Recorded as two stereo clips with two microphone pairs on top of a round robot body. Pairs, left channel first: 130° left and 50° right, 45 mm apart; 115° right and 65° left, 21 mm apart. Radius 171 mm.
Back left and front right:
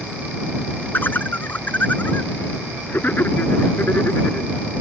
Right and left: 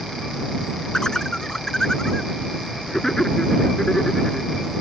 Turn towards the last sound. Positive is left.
turn(degrees=180)